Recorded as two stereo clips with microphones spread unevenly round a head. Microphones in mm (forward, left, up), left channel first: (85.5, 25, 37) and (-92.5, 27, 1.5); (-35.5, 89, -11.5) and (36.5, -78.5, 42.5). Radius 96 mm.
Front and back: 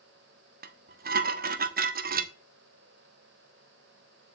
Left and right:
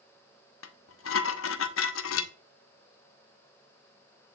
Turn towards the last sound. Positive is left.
turn(degrees=135)